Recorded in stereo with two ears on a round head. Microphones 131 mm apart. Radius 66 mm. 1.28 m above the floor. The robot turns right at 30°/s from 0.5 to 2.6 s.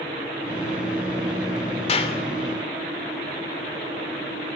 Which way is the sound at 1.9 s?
45° left (ahead or behind).